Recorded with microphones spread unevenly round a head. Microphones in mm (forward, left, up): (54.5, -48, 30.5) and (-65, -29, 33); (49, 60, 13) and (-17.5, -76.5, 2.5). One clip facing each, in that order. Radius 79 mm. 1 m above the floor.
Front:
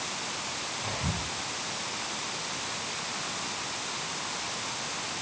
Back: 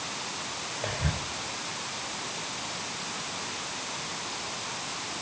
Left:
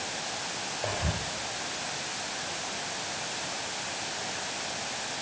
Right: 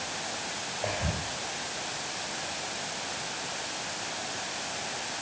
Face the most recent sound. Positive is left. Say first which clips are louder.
# back 2 dB, right 1 dB
turn(degrees=155)